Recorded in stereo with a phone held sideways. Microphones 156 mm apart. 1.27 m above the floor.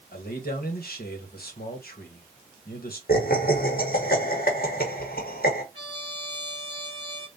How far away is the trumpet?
About 2.0 m.